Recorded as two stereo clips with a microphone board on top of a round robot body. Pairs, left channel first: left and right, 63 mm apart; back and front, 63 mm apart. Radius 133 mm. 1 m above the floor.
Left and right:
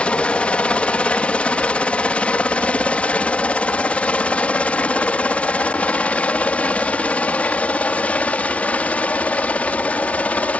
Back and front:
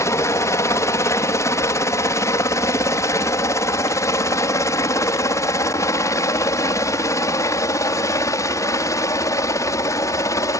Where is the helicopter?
160° left; by 10.6 s 155° left.